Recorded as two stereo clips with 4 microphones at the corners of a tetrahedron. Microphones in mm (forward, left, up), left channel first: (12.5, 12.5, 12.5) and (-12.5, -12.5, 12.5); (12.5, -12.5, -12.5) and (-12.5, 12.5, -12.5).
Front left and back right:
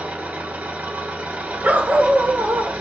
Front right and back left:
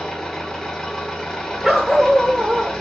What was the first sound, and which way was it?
An engine running, 120° right.